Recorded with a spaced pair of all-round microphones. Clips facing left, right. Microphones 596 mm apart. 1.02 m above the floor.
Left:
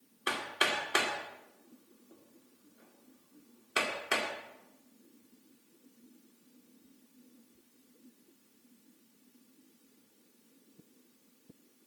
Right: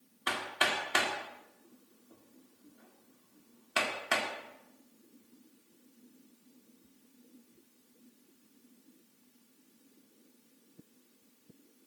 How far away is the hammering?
About 1.6 m.